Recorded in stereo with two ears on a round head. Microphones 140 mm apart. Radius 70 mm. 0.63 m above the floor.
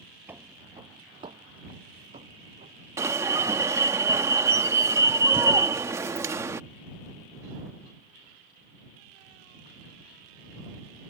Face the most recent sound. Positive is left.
turn(degrees=-20)  # may be behind; listen again after turning